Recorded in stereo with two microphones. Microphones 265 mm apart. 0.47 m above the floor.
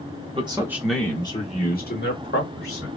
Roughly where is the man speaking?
Right.